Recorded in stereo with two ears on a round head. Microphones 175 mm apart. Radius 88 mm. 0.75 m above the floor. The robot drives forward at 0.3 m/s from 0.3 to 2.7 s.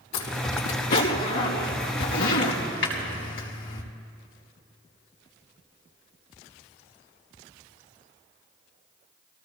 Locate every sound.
0.1 s a zipper: 85° left, 4.5 m; by 3.8 s 75° left (ahead or behind), 4.5 m